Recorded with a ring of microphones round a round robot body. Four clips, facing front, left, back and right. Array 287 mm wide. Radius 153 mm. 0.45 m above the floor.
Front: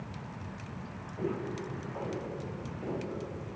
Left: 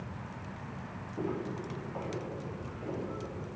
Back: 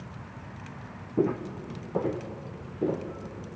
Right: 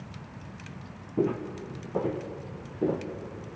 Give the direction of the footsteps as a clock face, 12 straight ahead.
5 o'clock.